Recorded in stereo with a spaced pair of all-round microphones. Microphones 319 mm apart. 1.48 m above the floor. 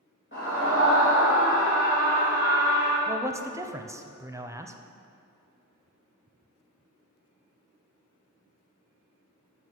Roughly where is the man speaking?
Centre.